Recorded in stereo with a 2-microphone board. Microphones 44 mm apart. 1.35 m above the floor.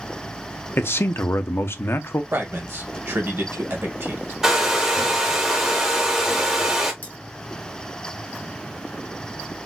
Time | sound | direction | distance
0.8 | a man speaking | 60° left (ahead or behind) | 0.5 m
2.3 | a man speaking | 65° right (ahead or behind) | 1.4 m
4.4 | a hair dryer | 10° right (ahead or behind) | 1.1 m
7.0 | cutlery clinking | 55° left (ahead or behind) | 1.6 m